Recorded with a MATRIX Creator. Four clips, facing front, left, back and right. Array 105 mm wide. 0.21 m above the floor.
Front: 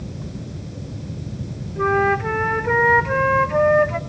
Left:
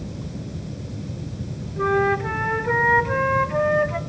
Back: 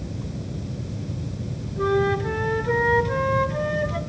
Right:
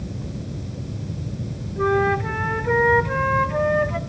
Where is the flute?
5° left, 1.0 m.